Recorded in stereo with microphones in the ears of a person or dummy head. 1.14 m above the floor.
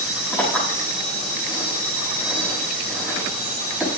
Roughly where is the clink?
Centre.